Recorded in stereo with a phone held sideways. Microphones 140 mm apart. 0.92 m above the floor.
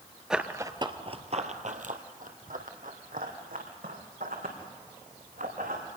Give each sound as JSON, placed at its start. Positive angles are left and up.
{"t": 0.3, "sound": "running footsteps", "side_deg": -5, "distance_m": 1.0}